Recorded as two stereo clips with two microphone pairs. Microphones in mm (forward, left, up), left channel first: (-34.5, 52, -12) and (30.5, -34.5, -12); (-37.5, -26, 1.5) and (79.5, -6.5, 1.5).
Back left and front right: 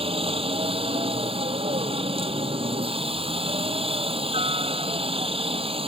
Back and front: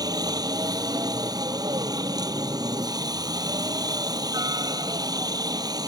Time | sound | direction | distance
0.0 | a helicopter | 45° right | ?